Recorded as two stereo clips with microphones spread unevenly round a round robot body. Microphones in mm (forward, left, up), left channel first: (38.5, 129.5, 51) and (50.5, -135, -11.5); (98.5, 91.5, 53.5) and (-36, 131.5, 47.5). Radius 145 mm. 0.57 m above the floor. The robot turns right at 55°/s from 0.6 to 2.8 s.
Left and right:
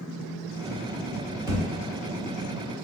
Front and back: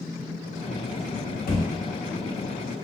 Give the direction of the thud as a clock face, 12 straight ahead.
12 o'clock.